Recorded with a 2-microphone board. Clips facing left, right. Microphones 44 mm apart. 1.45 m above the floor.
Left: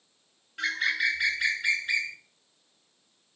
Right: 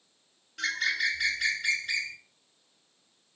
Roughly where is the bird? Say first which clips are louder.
Left 2 dB; centre.